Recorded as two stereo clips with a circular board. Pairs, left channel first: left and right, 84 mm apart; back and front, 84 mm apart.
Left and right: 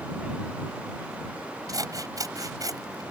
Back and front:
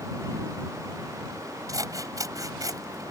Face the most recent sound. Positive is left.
turn(degrees=-45)